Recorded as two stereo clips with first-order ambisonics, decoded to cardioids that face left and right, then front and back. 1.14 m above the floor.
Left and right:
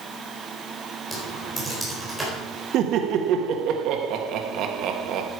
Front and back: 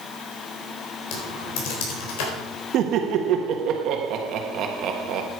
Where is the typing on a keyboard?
Straight ahead, 4 m.